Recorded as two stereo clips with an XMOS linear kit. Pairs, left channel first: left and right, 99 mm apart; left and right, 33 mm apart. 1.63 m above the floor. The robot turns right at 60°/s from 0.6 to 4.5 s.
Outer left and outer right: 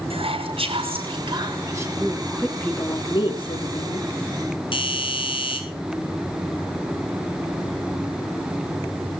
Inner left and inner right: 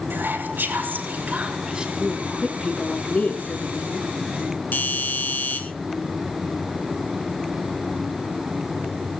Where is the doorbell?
65° left (ahead or behind), 5.5 m.